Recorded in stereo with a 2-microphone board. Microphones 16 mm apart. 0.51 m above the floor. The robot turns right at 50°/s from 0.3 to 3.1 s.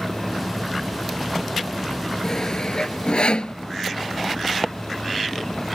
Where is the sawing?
35° left (ahead or behind); by 3.6 s 80° left.